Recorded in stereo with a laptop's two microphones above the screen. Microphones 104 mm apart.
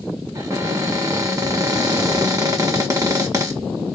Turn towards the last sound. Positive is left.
turn(degrees=-30)  # may be behind; listen again after turning